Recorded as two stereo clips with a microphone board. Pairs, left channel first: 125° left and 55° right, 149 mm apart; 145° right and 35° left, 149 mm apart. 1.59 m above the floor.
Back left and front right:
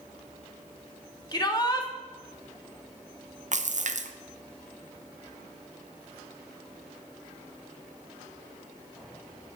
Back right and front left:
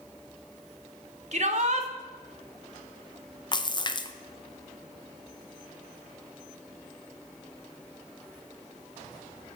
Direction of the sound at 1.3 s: 65° left.